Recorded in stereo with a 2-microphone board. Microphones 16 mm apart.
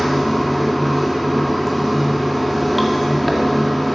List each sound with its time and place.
0.0 s running water: centre (ahead or behind), 1.9 m